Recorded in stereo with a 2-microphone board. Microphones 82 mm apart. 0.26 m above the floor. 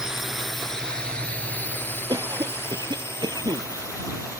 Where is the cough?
55° right (ahead or behind).